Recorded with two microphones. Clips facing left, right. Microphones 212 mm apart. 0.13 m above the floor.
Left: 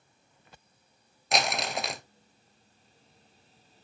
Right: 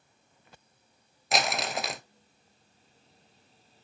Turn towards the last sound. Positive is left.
turn(degrees=0)  # may be behind; listen again after turning